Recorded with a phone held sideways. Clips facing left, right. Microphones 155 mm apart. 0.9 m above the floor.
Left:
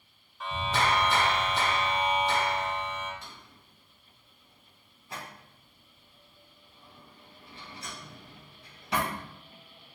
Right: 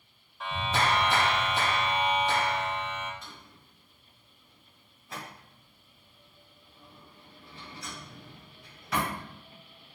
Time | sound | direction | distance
0.4 | a clap | 5° right (ahead or behind) | 2 m
3.2 | a drawer | 30° left (ahead or behind) | 2.5 m